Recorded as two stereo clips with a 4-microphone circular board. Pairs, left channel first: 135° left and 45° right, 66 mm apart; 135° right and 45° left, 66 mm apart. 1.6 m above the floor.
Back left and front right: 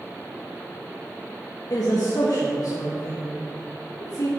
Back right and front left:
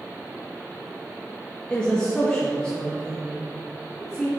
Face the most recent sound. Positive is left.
turn(degrees=150)